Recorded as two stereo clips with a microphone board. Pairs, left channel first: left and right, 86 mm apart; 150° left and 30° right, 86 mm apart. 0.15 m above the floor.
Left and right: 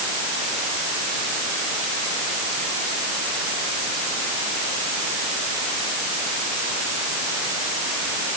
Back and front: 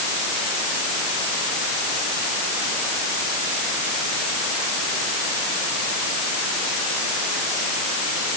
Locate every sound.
Only background noise.